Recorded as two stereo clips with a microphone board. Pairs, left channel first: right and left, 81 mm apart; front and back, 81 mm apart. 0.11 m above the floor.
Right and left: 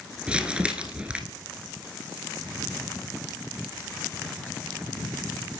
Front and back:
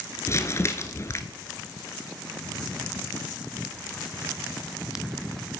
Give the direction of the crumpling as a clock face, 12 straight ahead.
11 o'clock.